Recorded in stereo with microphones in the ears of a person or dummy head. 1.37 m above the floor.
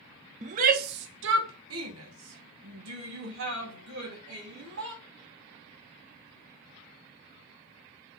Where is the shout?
35° right (ahead or behind), 1.0 m; by 5.0 s 70° right (ahead or behind), 4 m.